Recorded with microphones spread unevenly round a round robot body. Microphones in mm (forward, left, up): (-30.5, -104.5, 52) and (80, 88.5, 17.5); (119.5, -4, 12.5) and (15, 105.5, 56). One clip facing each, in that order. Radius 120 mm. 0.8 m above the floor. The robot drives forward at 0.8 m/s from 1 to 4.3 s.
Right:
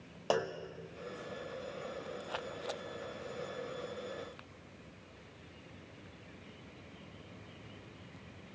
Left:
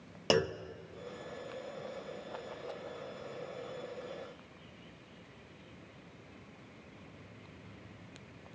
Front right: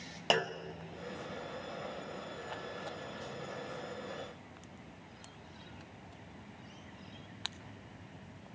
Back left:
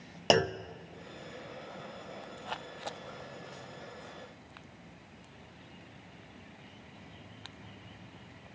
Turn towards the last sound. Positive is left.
turn(degrees=160)